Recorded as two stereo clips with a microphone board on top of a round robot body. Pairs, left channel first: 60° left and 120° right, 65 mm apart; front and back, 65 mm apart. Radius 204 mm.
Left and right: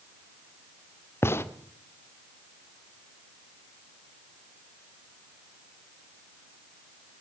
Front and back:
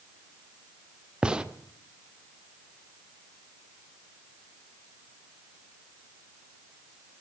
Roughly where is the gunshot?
Left.